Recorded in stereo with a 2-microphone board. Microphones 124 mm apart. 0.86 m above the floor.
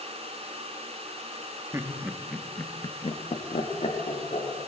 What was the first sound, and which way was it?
Laughter, 25° right (ahead or behind).